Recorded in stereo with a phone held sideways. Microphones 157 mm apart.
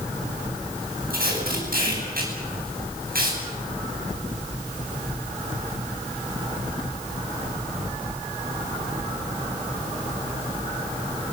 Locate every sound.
1.1 s tape being pulled: 75° right (ahead or behind), 9.5 m